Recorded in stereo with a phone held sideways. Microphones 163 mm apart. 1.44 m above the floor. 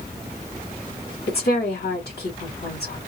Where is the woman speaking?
85° left, 2.5 m.